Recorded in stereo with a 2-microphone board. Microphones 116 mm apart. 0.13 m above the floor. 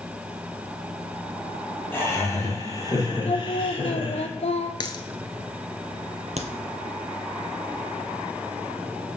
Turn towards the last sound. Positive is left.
turn(degrees=-75)  # may be behind; listen again after turning